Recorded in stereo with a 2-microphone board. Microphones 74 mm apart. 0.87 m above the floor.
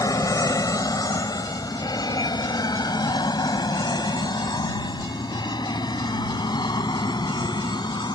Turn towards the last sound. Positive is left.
turn(degrees=80)